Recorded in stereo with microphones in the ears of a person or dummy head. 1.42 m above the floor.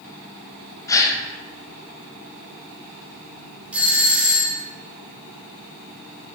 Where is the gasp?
20° left (ahead or behind), 0.8 m.